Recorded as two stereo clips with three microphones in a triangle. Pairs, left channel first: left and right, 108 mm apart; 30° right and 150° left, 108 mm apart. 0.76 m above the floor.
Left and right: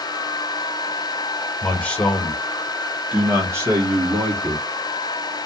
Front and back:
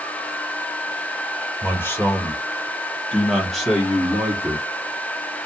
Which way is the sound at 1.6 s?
25° left.